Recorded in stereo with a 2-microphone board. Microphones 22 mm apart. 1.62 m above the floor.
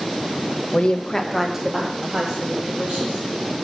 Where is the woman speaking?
65° left (ahead or behind), 0.7 m; by 3.2 s 45° right (ahead or behind), 2.5 m.